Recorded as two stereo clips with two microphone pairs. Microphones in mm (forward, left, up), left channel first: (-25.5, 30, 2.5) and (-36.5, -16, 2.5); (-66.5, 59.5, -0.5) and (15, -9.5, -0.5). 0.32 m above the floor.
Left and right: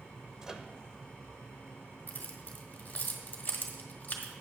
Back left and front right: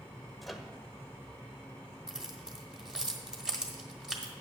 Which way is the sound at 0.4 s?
140° right.